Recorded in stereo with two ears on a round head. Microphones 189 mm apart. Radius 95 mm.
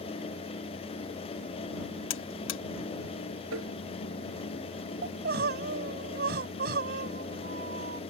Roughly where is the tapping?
Right.